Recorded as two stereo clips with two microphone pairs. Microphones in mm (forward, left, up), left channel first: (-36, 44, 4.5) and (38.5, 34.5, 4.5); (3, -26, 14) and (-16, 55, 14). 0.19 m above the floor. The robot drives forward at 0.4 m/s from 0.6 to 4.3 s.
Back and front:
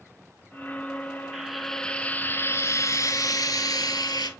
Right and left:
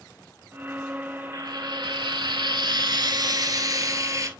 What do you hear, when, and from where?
1.3 s frying: 75° left, 0.7 m; by 4.3 s 150° left, 1.2 m